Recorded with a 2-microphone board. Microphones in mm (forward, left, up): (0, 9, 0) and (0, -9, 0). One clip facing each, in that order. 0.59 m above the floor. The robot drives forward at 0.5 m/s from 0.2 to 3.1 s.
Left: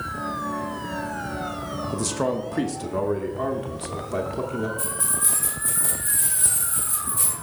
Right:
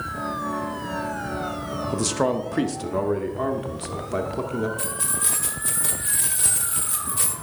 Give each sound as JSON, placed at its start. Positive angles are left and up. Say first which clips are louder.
{"t": 1.9, "sound": "a man speaking", "louder": "right 3 dB", "side_deg": -20, "distance_m": 0.6}
{"t": 4.8, "sound": "keys jangling", "louder": "even", "side_deg": -45, "distance_m": 1.5}